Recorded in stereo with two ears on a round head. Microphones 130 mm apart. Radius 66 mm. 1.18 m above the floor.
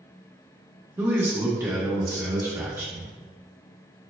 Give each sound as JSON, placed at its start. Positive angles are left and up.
{"t": 1.0, "sound": "a man speaking", "side_deg": -15, "distance_m": 1.0}